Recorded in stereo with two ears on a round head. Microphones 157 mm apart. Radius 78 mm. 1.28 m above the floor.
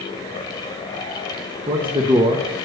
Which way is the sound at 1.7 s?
25° right (ahead or behind).